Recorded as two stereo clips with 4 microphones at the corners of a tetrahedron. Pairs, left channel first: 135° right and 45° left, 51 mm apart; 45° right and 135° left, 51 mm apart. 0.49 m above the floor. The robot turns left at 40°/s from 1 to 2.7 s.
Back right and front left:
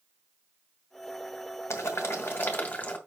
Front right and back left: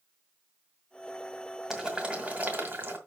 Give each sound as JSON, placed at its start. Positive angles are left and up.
{"t": 1.7, "sound": "boiling", "azimuth_deg": -150, "distance_m": 1.9}